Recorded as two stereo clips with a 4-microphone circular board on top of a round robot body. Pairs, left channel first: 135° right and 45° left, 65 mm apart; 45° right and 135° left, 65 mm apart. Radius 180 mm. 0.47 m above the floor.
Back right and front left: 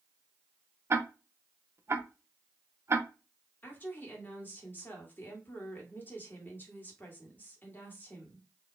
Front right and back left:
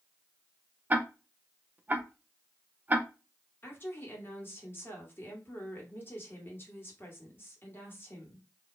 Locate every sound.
0.9 s ticking: 80° left, 0.8 m
3.6 s a woman speaking: 85° right, 1.8 m